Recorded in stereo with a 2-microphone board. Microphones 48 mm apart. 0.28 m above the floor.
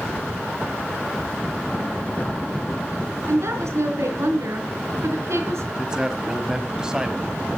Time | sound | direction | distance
3.3 | a woman speaking | 70° right (ahead or behind) | 3.5 m
5.8 | a man speaking | 15° right (ahead or behind) | 1.5 m